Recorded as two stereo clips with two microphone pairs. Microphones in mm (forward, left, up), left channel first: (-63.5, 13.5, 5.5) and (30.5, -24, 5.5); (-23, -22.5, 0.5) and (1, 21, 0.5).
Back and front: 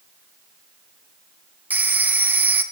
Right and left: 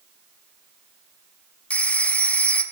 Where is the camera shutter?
I don't hear a camera shutter.